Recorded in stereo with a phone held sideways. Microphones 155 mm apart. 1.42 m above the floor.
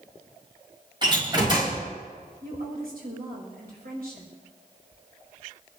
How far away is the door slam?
About 5.5 m.